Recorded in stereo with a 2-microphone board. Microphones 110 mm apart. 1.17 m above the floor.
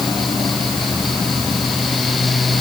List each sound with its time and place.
Only background noise.